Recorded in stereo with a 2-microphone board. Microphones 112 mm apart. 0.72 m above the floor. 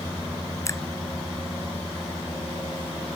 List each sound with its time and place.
0.7 s a finger snap: 25° left (ahead or behind)